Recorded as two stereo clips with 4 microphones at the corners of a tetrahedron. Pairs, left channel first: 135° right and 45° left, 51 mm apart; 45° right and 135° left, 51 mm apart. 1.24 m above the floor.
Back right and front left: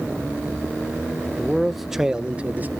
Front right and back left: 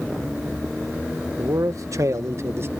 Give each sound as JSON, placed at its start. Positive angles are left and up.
{"t": 1.4, "sound": "a man speaking", "azimuth_deg": 145}